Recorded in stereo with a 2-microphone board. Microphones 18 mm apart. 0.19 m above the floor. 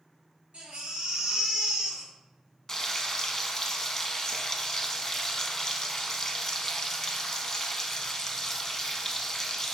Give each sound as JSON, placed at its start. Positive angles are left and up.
{"t": 0.5, "sound": "a baby crying", "side_deg": -70, "distance_m": 1.7}
{"t": 2.7, "sound": "frying", "side_deg": 25, "distance_m": 0.6}